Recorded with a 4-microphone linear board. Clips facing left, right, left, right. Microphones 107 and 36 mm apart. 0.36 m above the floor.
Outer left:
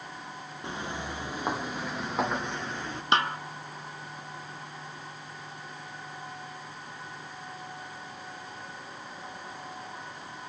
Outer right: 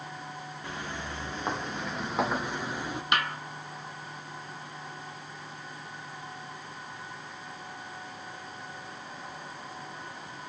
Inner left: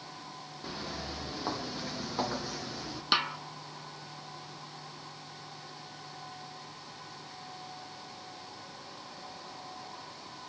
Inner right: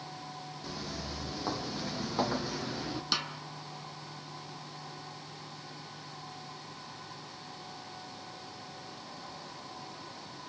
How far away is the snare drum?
About 0.8 m.